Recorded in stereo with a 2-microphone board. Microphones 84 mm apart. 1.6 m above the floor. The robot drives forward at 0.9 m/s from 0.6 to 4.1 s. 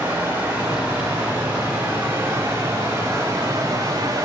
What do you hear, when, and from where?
0.0 s running water: 25° right (ahead or behind), 5.5 m; by 4.3 s 45° right (ahead or behind), 3 m